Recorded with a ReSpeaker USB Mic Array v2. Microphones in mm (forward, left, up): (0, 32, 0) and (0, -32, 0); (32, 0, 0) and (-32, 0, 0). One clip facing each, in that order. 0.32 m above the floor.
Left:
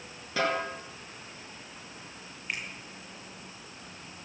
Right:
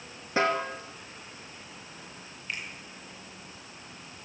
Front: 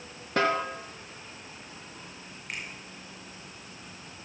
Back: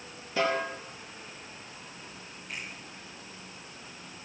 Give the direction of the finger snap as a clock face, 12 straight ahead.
11 o'clock.